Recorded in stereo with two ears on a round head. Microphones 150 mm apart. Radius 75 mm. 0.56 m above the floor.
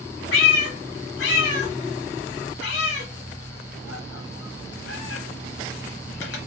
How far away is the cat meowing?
About 1.0 m.